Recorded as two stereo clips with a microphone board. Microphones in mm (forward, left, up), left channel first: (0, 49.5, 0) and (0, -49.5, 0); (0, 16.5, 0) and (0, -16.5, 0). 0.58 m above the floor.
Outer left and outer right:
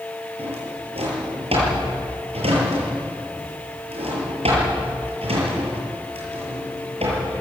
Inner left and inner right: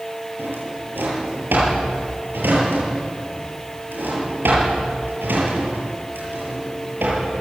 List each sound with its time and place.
0.4 s a drawer: 85° right, 8 m